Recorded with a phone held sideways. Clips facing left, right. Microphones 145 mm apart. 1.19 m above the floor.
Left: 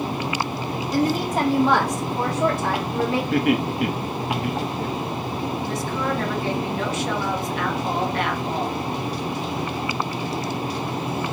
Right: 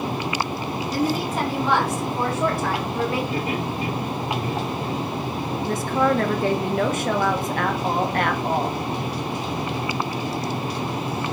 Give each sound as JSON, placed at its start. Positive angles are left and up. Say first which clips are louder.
{"t": 0.9, "sound": "a woman speaking", "louder": "left 3 dB", "side_deg": 50, "distance_m": 2.5}
{"t": 3.3, "sound": "laughter", "louder": "left 5 dB", "side_deg": 80, "distance_m": 1.8}
{"t": 5.6, "sound": "a woman speaking", "louder": "right 9 dB", "side_deg": -50, "distance_m": 1.5}